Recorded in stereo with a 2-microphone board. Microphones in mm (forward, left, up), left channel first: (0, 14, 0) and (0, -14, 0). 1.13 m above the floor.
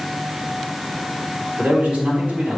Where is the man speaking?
65° right (ahead or behind), 4 m.